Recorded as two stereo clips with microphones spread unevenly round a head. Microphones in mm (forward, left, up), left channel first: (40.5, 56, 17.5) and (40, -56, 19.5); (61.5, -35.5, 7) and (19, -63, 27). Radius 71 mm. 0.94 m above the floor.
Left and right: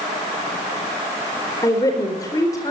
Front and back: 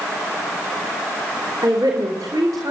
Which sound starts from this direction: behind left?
A woman speaking, at 1.6 s.